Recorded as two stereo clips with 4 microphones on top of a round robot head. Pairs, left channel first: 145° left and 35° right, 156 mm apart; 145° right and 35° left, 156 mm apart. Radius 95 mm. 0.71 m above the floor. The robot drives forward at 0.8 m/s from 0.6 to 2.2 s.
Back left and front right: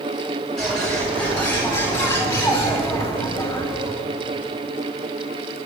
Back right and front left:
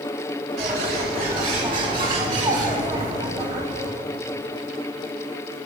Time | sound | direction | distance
0.6 | a bird | 60° left | 4 m